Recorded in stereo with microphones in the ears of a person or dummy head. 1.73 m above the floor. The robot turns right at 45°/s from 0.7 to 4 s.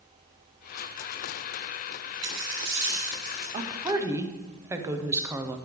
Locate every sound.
2.2 s a dropped coin: 60° right, 2.0 m; by 3.4 s 5° right, 2.0 m
3.5 s a woman speaking: 30° right (ahead or behind), 0.7 m; by 5.6 s 20° right (ahead or behind), 0.7 m